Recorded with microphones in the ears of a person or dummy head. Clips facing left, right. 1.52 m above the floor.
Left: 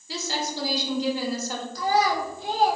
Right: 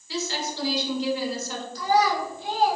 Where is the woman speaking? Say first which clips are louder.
Even; 35° left (ahead or behind), 1.2 m.